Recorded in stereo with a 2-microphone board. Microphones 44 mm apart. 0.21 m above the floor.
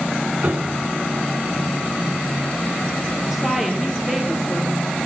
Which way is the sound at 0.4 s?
40° right (ahead or behind).